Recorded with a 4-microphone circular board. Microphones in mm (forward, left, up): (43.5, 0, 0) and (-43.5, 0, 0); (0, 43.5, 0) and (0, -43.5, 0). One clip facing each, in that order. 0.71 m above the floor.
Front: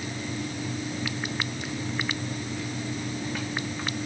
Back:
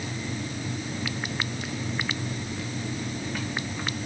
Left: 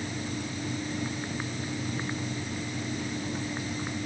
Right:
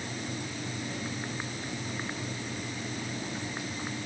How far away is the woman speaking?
No woman speaking in this recording.